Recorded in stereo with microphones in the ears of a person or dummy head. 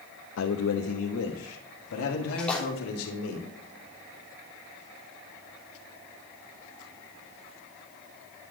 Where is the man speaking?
75° left (ahead or behind), 0.9 m; by 3.4 s 80° left, 2.5 m.